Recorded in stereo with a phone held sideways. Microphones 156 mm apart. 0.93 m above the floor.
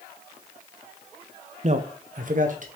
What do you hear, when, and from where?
1.6 s a man speaking: 45° right (ahead or behind), 0.5 m; by 2.6 s 55° right (ahead or behind), 1.0 m